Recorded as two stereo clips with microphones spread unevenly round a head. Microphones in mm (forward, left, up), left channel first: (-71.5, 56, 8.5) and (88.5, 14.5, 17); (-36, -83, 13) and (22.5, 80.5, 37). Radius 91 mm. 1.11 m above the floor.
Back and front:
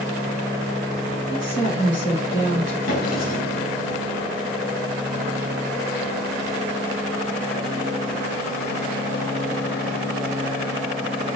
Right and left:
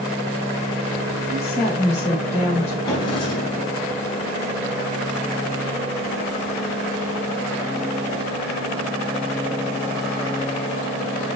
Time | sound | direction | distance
1.3 | a woman speaking | 160° right | 3.5 m
2.9 | a drawer | straight behind | 4 m